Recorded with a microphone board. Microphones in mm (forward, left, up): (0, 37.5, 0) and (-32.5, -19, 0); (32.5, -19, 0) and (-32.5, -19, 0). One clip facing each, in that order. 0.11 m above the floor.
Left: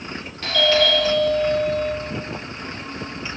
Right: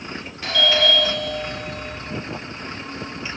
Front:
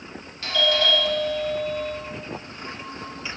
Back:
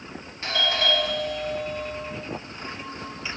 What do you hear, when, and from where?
0.4 s a doorbell: 175° left, 1.7 m